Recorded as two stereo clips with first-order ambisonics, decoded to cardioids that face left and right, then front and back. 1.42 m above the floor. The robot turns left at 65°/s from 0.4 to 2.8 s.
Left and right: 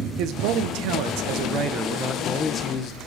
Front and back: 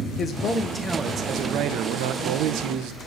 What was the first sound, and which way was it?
A man speaking, 65° right.